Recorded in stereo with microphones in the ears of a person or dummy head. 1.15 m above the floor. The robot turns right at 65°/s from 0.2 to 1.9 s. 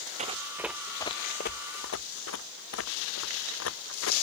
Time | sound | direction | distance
0.2 | running footsteps | 40° right (ahead or behind) | ?